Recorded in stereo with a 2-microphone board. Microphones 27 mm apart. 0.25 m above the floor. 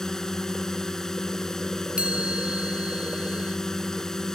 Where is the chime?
40° right (ahead or behind).